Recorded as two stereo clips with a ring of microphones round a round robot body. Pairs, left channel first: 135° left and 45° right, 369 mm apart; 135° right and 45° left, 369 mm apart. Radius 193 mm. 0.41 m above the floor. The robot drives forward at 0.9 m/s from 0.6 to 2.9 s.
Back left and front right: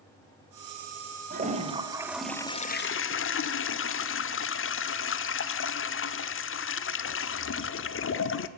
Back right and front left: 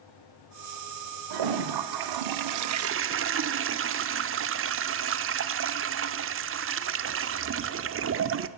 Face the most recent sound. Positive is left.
turn(degrees=90)